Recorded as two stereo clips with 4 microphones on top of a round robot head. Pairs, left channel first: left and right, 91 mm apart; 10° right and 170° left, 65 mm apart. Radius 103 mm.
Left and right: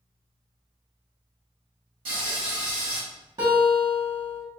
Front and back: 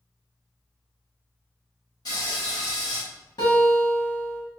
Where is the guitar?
35° right, 1.6 m.